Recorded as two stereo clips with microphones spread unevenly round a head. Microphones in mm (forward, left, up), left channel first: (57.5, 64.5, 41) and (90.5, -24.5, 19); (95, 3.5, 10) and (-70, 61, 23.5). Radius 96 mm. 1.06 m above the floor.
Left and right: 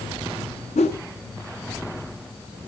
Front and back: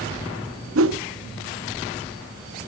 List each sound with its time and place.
0.8 s a whoosh: 160° left, 1.1 m